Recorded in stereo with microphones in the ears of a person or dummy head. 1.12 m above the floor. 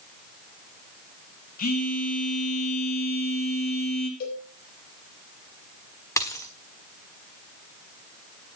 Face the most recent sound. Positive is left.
turn(degrees=20)  # may be behind; listen again after turning